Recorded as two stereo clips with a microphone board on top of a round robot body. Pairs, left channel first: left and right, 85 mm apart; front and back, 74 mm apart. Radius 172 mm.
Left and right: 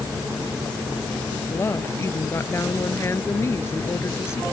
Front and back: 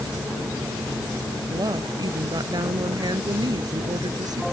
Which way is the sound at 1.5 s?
150° left.